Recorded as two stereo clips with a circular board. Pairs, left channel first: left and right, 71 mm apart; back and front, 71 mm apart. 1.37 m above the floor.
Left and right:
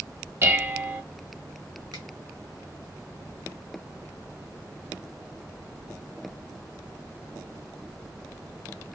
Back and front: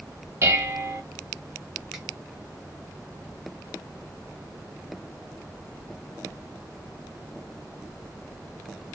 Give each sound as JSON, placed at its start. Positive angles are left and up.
{"t": 0.4, "sound": "dishes clattering", "azimuth_deg": -40, "distance_m": 0.7}
{"t": 1.9, "sound": "a finger snap", "azimuth_deg": -80, "distance_m": 1.4}